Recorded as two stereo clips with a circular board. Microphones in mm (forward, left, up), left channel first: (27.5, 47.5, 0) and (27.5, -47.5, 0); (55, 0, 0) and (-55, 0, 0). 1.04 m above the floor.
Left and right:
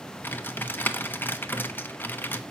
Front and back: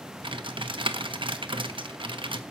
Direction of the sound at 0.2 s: 155° left.